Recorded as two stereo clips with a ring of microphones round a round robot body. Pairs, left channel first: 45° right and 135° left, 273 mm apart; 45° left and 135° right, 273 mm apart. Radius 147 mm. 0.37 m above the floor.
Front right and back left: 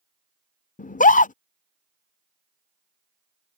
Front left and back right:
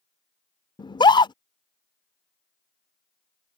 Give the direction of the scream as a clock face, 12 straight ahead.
12 o'clock.